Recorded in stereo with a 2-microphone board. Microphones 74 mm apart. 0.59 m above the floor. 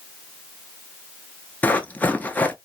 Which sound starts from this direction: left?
Running footsteps, at 1.6 s.